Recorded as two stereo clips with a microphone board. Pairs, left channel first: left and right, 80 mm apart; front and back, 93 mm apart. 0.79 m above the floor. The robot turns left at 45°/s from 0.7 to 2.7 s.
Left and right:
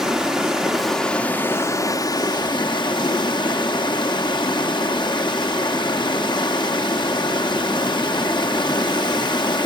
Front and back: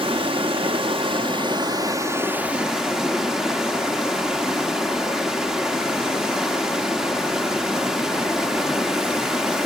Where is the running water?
175° right, 1.4 m; by 9.7 s 95° left, 1.4 m.